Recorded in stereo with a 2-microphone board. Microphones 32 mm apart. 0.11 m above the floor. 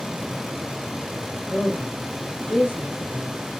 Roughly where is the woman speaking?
Left.